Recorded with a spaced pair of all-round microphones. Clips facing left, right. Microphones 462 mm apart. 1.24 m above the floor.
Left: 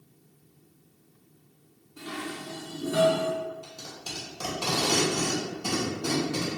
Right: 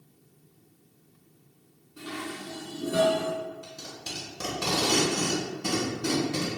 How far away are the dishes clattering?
About 1.3 m.